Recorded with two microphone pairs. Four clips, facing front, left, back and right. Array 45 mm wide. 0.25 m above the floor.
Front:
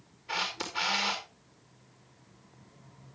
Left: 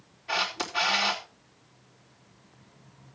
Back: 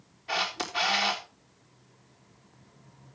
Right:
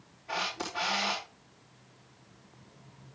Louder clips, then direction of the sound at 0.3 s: Left 5 dB, back 3 dB; 145° left.